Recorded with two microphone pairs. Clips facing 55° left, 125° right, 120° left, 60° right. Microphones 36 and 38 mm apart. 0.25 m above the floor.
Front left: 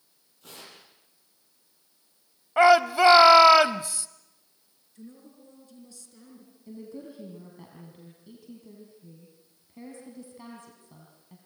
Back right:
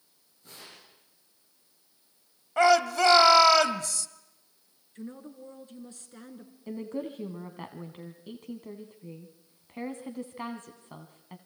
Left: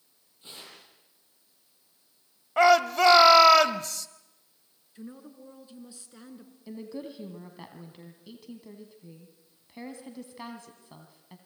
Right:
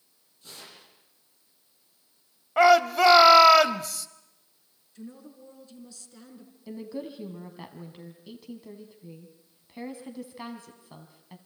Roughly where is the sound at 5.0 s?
Behind.